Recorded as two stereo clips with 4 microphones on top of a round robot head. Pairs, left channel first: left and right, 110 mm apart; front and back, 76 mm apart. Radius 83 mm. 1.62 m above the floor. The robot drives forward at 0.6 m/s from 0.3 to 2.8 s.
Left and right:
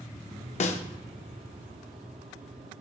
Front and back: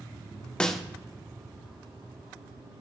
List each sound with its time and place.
0.6 s a snare drum: 75° left, 0.5 m; by 0.8 s 90° left, 0.5 m